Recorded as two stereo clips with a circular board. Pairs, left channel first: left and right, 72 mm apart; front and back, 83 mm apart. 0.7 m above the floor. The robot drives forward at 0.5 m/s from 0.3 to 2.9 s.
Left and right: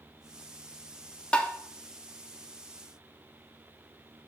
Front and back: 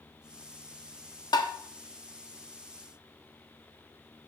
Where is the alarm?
I don't hear an alarm.